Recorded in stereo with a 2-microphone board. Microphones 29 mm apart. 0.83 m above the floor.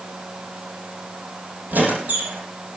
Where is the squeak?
75° right (ahead or behind), 5.5 m.